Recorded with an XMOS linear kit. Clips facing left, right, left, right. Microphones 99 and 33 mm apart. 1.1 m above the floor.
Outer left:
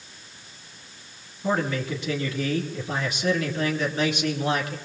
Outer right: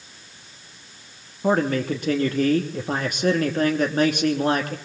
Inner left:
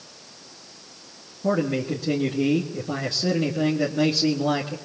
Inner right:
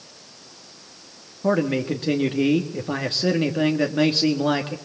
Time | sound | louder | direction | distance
1.4 | a man speaking | outer right 5 dB, inner right 2 dB | 50° right (ahead or behind) | 1.8 m